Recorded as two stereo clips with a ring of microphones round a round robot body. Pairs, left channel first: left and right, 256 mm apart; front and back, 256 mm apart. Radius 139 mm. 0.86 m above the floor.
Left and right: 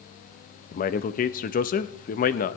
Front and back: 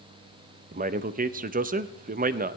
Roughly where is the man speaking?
Behind left.